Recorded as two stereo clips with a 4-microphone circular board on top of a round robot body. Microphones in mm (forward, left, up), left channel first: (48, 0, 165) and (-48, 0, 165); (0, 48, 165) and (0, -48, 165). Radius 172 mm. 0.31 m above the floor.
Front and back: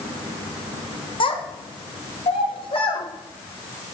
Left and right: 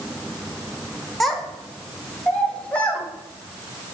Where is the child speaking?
Straight ahead, 1.4 m; by 3.0 s 15° left, 2 m.